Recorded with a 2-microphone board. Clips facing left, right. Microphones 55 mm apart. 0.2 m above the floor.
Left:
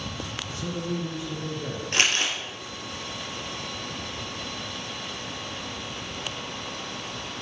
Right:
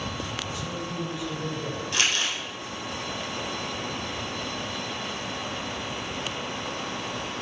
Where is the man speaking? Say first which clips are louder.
Left 2 dB; 45° left (ahead or behind), 2.5 m.